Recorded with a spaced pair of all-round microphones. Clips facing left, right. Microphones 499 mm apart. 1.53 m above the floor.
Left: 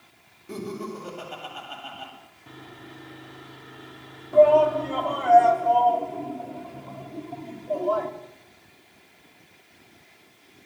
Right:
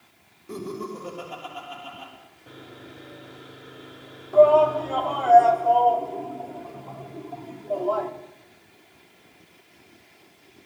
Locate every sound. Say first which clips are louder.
0.5 s laughter: even; 5° left (ahead or behind), 8.5 m
2.5 s sawing: right 1 dB; 20° left (ahead or behind), 3 m
4.3 s a shout: right 1 dB; 40° left (ahead or behind), 4 m